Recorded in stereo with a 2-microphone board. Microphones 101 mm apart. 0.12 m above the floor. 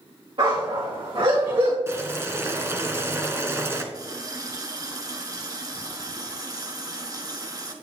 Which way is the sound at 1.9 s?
25° right (ahead or behind).